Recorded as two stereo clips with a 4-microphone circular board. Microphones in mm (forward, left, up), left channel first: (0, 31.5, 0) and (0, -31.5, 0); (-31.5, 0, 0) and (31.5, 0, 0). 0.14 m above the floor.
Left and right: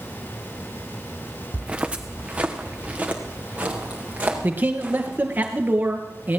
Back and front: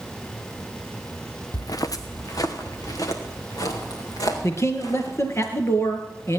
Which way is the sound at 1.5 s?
165° right.